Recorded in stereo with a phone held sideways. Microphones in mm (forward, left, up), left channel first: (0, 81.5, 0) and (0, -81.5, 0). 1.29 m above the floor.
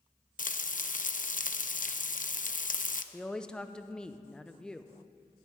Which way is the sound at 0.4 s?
60° left (ahead or behind).